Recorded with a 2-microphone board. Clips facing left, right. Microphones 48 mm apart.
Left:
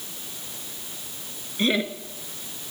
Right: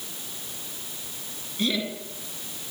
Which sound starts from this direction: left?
Laughter, at 1.6 s.